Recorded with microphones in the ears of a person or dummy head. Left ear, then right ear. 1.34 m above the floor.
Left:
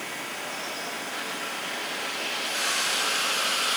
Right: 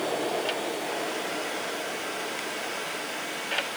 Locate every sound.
Only background noise.